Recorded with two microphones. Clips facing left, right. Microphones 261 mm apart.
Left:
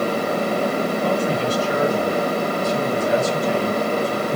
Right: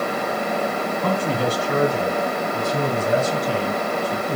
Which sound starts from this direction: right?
A man speaking, at 1.0 s.